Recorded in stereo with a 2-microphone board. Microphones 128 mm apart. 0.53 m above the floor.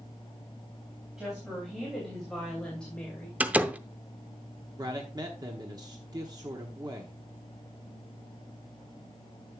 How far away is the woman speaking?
About 3.5 m.